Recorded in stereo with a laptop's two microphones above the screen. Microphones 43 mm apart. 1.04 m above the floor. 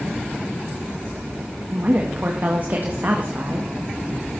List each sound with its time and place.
1.7 s a woman speaking: 45° right (ahead or behind), 1.7 m